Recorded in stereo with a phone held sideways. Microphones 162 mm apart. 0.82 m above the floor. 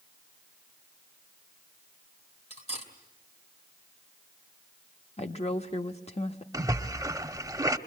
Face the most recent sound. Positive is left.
turn(degrees=-25)  # may be behind; listen again after turning